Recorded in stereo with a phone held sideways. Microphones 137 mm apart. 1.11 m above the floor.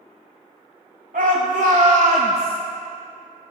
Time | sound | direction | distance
1.1 | a shout | 85° right | 1.0 m